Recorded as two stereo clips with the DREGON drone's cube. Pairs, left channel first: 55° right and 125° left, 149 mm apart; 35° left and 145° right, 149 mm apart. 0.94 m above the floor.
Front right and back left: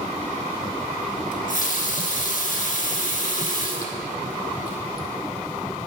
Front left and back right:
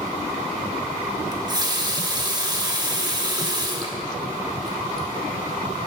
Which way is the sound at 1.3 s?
85° right.